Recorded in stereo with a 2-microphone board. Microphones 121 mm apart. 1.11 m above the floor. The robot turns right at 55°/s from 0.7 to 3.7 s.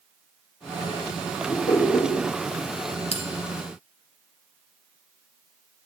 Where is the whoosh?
110° left, 5 m; by 2.1 s 145° left, 5 m.